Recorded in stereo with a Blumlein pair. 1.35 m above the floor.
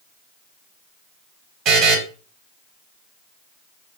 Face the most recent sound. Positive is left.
turn(degrees=-35)